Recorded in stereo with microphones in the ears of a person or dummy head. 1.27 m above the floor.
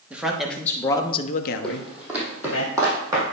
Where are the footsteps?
Centre (ahead or behind), 2.5 m; by 3.2 s 25° right (ahead or behind), 3.5 m.